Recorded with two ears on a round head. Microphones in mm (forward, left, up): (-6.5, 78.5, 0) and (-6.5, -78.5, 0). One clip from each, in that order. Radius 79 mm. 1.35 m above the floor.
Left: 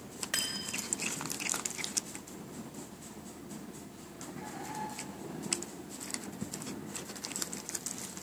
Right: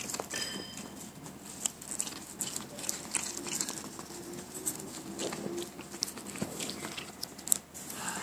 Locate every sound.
0.3 s cutlery clinking: 65° left (ahead or behind), 1.7 m